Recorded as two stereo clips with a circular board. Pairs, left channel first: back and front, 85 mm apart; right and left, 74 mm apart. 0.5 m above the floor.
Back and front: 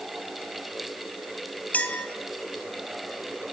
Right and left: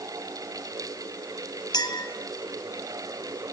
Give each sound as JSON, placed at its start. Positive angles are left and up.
{"t": 1.7, "sound": "a clink", "azimuth_deg": -110, "distance_m": 2.5}